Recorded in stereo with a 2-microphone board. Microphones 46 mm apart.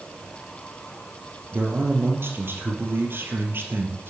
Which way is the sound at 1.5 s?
50° right (ahead or behind).